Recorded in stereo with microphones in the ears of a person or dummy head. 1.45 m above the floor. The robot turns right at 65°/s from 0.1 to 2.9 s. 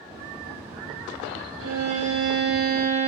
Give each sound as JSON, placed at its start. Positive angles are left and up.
{"t": 1.6, "sound": "a violin", "azimuth_deg": -115, "distance_m": 0.7}